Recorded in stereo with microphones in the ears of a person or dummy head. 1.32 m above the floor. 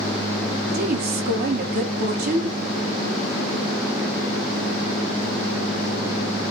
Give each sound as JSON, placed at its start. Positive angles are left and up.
{"t": 0.7, "sound": "a woman speaking", "side_deg": -55, "distance_m": 1.3}